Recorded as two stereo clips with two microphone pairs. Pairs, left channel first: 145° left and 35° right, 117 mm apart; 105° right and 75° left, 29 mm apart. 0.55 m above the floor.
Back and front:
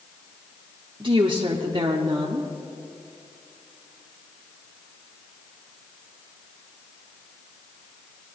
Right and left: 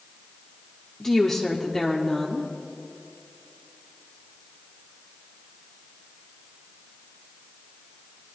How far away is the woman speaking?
About 0.9 m.